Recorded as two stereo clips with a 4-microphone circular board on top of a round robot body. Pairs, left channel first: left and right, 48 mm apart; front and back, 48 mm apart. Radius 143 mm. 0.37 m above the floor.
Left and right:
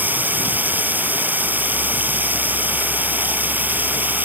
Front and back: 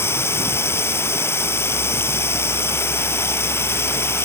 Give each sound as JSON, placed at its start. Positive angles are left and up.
{"t": 0.0, "sound": "running water", "azimuth_deg": -35}